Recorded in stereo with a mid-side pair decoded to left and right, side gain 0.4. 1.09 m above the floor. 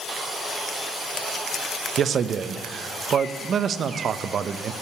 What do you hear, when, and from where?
2.0 s a man speaking: 55° right, 0.7 m